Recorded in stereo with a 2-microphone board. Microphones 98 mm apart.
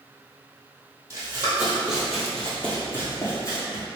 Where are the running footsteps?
30° right (ahead or behind), 1.5 m; by 3.9 s 40° left (ahead or behind), 1.8 m.